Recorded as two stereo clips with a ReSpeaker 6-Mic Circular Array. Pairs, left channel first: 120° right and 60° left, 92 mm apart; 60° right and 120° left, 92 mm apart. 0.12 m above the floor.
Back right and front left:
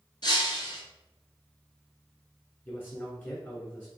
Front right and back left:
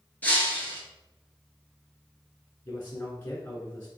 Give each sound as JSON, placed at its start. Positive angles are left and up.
{"t": 0.2, "sound": "breaking glass", "azimuth_deg": -130, "distance_m": 1.0}
{"t": 2.6, "sound": "a man speaking", "azimuth_deg": -90, "distance_m": 1.1}